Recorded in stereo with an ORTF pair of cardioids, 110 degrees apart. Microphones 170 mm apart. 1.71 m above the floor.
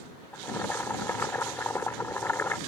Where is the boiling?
10° left.